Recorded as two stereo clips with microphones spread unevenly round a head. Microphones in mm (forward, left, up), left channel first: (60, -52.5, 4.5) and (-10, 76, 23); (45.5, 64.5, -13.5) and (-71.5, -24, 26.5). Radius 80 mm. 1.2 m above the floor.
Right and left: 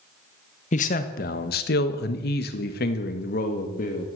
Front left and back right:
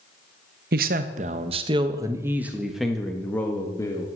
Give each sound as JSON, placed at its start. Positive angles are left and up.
{"t": 0.7, "sound": "a man speaking", "azimuth_deg": -105, "distance_m": 1.4}